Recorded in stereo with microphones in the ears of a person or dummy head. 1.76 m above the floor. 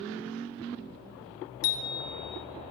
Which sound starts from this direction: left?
A bicycle bell, at 1.6 s.